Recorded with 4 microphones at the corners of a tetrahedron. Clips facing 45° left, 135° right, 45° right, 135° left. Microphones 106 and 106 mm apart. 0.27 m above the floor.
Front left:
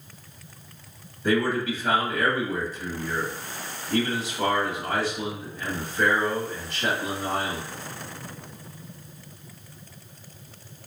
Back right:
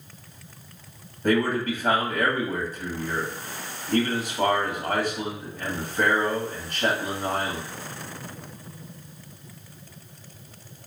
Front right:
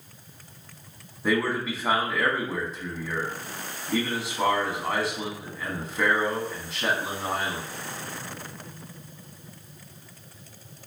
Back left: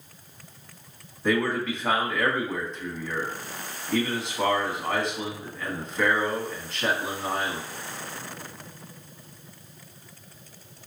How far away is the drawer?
No drawer in this recording.